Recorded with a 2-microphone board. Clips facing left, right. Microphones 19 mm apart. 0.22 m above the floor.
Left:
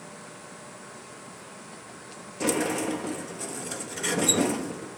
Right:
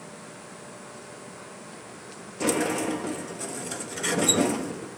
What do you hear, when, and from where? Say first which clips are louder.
2.4 s a sliding door: right 1 dB; 10° right (ahead or behind), 0.8 m